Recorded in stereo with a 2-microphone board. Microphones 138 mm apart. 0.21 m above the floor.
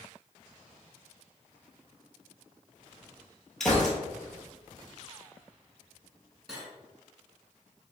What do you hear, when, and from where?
3.6 s a gunshot: 5° left (ahead or behind), 1.0 m
6.5 s cutlery clinking: centre (ahead or behind), 1.6 m